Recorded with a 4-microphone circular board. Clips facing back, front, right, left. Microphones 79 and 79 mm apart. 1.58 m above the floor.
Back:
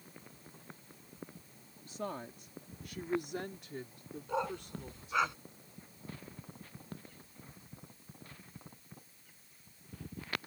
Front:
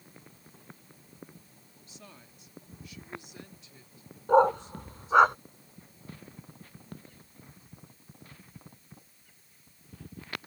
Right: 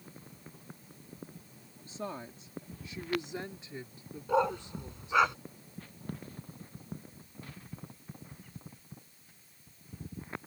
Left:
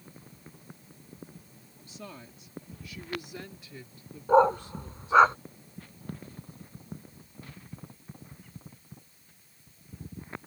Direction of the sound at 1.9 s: 145° right.